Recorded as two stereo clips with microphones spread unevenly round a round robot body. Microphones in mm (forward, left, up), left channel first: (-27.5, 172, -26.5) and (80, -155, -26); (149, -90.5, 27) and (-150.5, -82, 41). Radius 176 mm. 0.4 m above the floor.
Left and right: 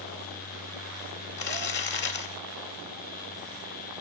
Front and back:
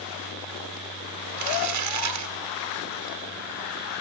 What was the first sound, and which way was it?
Crumpling, 165° left.